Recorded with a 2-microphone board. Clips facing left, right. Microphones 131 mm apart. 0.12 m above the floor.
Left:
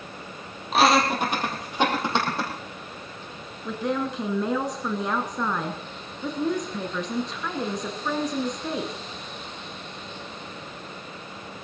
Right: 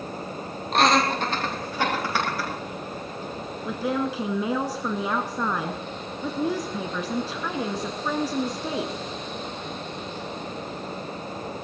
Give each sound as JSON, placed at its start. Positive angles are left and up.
{"t": 0.7, "sound": "laughter", "side_deg": 5, "distance_m": 3.0}
{"t": 3.6, "sound": "a woman speaking", "side_deg": -5, "distance_m": 1.1}